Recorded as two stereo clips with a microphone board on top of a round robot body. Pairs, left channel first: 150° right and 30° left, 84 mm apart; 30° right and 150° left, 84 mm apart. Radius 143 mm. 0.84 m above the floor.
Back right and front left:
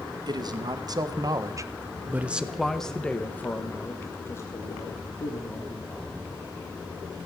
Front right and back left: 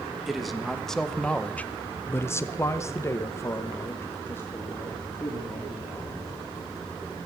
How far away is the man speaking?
About 1.6 m.